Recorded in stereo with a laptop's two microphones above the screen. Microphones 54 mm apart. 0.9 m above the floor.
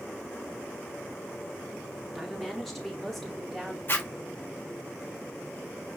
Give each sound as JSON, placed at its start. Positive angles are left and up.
{"t": 2.1, "sound": "a woman speaking", "side_deg": 0, "distance_m": 1.9}
{"t": 3.9, "sound": "a zipper", "side_deg": 40, "distance_m": 1.5}